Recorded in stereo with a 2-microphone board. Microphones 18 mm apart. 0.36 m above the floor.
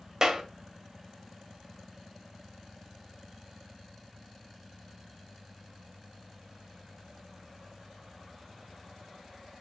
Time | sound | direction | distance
0.2 | a clap | 25° right (ahead or behind) | 1.6 m